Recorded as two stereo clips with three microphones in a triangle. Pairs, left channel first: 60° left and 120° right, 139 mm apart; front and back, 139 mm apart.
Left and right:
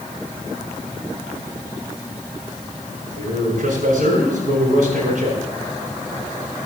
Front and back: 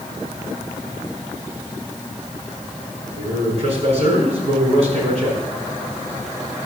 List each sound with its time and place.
3.2 s a man speaking: 140° right, 4.5 m